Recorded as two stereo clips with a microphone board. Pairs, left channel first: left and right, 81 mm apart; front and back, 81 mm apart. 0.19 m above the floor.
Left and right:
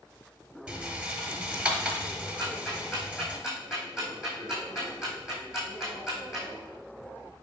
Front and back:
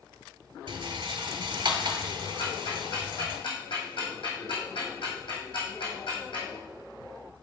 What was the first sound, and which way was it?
A rattle, 165° right.